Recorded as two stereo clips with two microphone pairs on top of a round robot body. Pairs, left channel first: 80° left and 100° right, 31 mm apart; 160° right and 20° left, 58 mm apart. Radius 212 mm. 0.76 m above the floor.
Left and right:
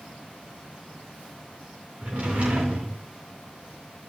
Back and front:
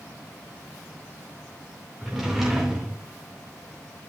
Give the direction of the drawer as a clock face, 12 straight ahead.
2 o'clock.